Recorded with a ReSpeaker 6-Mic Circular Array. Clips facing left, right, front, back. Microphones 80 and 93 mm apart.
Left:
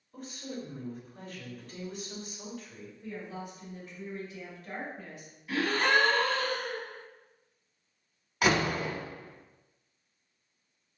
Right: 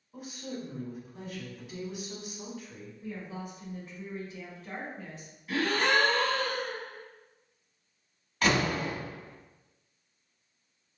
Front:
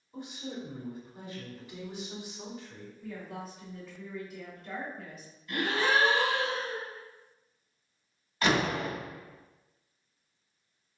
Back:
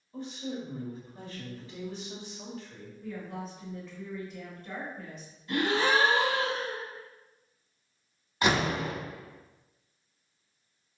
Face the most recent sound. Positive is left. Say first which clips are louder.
# even, back 1 dB
turn(degrees=150)